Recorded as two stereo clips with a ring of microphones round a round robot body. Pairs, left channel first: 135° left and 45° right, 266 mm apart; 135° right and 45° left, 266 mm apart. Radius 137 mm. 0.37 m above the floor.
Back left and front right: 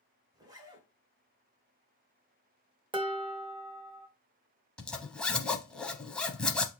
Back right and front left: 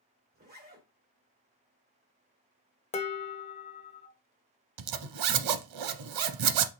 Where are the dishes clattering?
95° right, 0.8 m.